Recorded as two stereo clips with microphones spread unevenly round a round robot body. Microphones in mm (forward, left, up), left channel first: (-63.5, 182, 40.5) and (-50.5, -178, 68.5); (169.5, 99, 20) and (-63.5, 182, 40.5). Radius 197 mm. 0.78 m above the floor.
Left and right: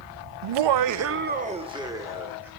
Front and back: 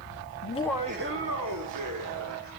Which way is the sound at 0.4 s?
70° right.